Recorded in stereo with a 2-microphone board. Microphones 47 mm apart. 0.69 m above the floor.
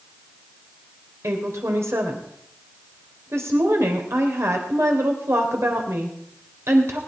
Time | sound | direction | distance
1.2 | a woman speaking | 75° right (ahead or behind) | 3 m